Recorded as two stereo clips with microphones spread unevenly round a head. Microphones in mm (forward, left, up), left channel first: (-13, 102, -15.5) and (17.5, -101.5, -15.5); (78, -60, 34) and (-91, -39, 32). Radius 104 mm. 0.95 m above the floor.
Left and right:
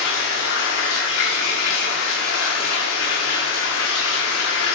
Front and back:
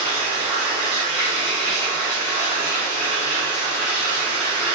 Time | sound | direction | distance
0.0 | running water | 70° left | 1.2 m